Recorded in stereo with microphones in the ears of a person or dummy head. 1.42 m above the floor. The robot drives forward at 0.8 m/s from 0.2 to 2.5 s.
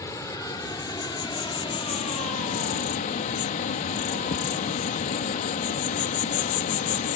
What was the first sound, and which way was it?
An insect, 15° left (ahead or behind).